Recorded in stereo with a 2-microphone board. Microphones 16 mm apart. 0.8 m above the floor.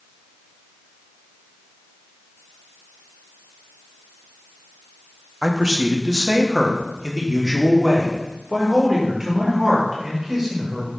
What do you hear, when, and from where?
5.4 s a man speaking: 55° right (ahead or behind), 0.9 m; by 10.9 s 15° right (ahead or behind), 3 m